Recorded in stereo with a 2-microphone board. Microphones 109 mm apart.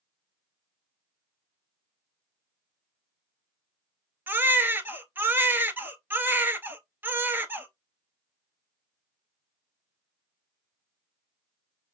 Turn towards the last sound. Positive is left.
turn(degrees=-15)  # may be behind; listen again after turning